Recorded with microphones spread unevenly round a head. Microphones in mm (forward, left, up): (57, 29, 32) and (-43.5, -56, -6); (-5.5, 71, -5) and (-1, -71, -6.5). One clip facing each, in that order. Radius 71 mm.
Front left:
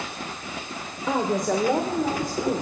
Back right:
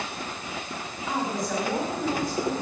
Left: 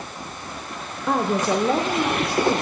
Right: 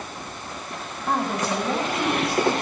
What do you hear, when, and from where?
1.1 s a woman speaking: 75° left, 1.2 m; by 2.6 s 90° left, 2.5 m